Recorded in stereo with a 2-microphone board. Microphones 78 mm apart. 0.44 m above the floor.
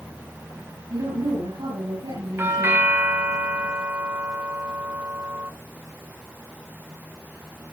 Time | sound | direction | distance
0.9 | a woman speaking | 85° right | 8 m
2.4 | a doorbell | 30° right (ahead or behind) | 2.5 m